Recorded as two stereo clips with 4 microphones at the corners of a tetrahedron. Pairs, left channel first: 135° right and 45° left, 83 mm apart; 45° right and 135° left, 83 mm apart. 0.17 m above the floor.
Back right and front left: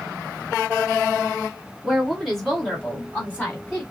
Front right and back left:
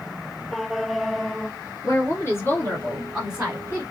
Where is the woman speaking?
40° right, 2 m; by 3.8 s straight behind, 1.9 m.